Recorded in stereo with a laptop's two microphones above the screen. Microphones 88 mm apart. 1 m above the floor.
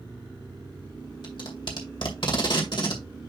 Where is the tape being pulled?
65° left (ahead or behind), 2 m.